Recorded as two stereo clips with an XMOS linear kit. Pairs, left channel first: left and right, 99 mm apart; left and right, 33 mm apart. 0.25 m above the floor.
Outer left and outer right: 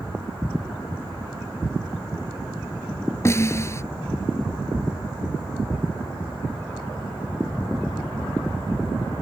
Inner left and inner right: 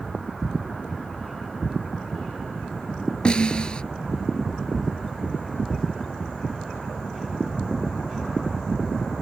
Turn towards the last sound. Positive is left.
turn(degrees=30)  # may be behind; listen again after turning